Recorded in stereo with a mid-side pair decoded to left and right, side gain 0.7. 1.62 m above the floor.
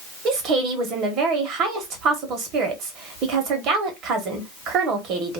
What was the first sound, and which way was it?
A woman speaking, 55° right.